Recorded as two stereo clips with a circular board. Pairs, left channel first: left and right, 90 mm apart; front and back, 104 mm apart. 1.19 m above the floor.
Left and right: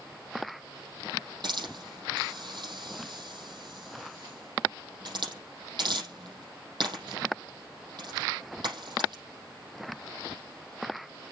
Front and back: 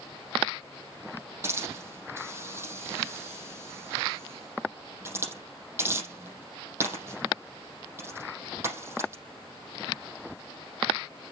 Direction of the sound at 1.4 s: 120° right.